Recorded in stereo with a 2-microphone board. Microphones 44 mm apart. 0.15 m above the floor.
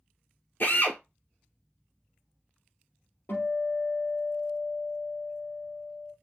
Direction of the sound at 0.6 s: 55° left (ahead or behind).